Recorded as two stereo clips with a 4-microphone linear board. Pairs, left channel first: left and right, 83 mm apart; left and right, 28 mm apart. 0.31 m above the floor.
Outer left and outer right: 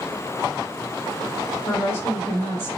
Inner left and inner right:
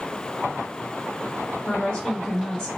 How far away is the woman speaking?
About 1.0 m.